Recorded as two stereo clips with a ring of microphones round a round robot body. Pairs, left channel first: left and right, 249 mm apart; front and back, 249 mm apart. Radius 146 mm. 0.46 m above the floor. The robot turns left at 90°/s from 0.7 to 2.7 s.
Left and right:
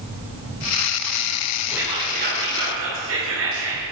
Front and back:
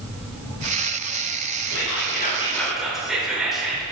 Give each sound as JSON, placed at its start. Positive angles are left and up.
{"t": 1.7, "sound": "whispering", "azimuth_deg": 0, "distance_m": 2.0}